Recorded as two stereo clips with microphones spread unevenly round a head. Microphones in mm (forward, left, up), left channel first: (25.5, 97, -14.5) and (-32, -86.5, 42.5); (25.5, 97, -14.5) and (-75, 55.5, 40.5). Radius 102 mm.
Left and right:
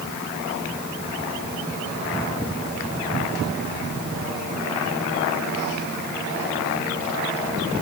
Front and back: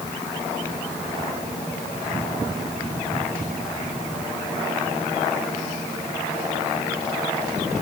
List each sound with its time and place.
Only background noise.